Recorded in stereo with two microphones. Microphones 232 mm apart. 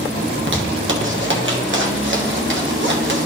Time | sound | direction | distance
0.3 | a zipper | 55° right (ahead or behind) | 1.2 m